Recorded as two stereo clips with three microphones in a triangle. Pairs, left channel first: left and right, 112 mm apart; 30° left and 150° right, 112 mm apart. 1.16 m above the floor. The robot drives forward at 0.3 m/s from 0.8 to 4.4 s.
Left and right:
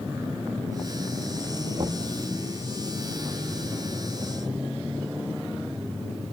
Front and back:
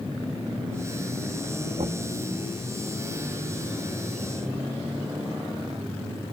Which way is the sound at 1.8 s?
125° right.